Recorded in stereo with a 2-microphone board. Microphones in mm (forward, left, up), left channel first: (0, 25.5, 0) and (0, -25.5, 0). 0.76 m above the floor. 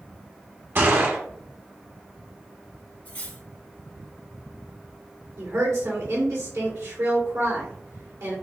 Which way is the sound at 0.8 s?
45° right (ahead or behind).